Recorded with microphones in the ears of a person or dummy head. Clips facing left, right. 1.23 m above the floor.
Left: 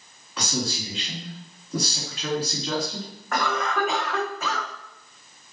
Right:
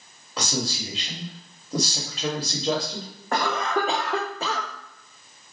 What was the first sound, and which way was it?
A man speaking, 40° right (ahead or behind).